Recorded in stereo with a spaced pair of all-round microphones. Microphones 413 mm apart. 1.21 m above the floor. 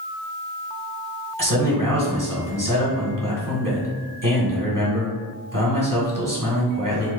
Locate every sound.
1.4 s a man speaking: 50° right (ahead or behind), 1.7 m